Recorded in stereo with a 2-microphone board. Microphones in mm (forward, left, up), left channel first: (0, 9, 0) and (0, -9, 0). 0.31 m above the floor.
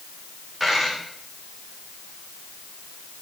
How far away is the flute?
I don't hear a flute.